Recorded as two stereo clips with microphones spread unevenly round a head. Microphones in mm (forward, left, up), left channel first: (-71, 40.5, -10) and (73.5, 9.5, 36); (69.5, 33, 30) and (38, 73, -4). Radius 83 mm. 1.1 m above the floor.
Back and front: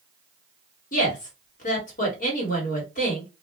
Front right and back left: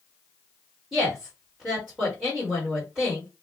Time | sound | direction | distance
0.9 | a woman speaking | 155° right | 1.4 m